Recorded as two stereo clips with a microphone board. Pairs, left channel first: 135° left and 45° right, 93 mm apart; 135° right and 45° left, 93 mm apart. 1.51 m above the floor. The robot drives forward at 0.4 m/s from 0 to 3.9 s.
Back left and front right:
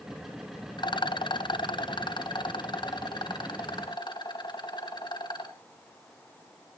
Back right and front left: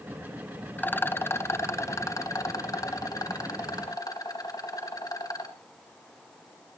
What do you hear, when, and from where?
0.8 s a rattle: 155° left, 0.5 m; by 5.5 s 175° left, 1.7 m